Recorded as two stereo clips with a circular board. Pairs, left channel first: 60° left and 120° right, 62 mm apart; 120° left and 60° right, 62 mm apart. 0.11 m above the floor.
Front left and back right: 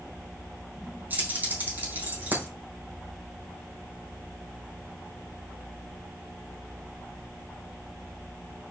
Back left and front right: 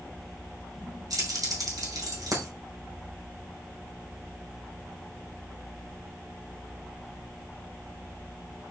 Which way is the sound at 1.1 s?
60° right.